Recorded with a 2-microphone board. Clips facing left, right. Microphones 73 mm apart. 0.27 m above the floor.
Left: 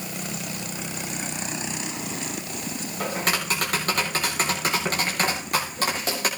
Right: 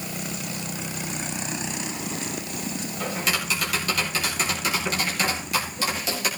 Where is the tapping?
45° left (ahead or behind), 8 m.